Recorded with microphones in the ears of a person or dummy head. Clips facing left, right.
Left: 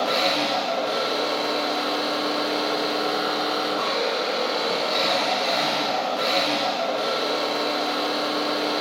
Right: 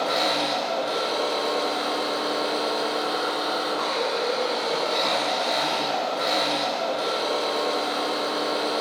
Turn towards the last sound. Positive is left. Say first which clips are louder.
# left 1 dB
turn(degrees=20)  # may be behind; listen again after turning